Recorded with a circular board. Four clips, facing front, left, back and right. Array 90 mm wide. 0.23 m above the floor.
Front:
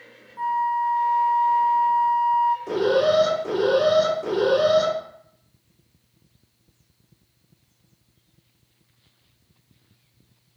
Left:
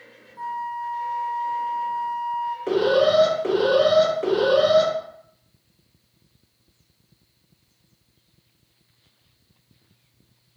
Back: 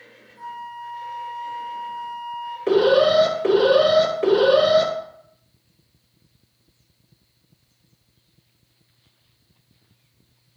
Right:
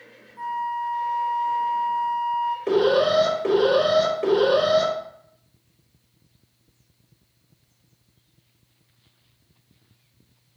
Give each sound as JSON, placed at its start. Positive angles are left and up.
{"t": 0.4, "sound": "a flute", "azimuth_deg": 5, "distance_m": 1.0}
{"t": 2.7, "sound": "an alarm", "azimuth_deg": 170, "distance_m": 4.0}